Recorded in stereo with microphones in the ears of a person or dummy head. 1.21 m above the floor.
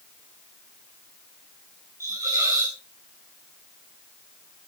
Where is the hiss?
15° right (ahead or behind), 2 m.